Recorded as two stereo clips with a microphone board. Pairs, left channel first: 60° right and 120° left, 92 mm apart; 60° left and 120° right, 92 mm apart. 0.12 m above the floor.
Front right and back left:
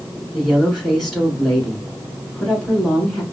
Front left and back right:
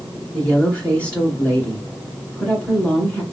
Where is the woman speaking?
25° left, 1.6 m.